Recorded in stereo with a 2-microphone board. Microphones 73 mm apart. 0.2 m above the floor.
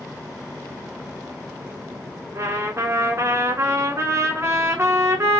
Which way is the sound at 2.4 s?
40° right (ahead or behind).